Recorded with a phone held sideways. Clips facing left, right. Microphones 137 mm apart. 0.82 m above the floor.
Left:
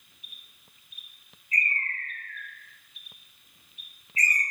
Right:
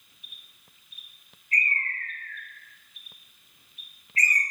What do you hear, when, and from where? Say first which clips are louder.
1.5 s a bird: right 1 dB; 70° right (ahead or behind), 0.6 m